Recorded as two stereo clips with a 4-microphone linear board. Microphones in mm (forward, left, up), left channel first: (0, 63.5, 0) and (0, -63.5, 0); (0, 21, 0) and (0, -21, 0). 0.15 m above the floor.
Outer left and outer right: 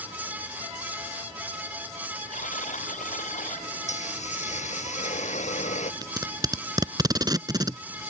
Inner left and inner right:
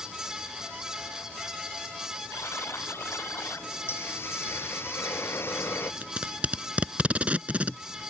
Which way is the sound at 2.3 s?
80° left.